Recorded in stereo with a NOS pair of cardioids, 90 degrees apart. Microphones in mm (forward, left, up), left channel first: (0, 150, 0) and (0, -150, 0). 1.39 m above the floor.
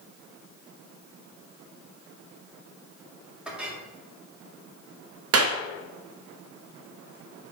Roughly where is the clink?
Ahead.